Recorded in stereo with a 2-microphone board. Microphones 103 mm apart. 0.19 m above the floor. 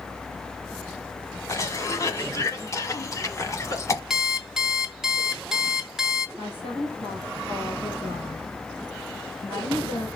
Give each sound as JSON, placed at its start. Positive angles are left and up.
{"t": 1.5, "sound": "a cough", "side_deg": 30, "distance_m": 1.3}
{"t": 4.1, "sound": "an alarm clock", "side_deg": -5, "distance_m": 0.8}
{"t": 6.4, "sound": "a woman speaking", "side_deg": 65, "distance_m": 3.0}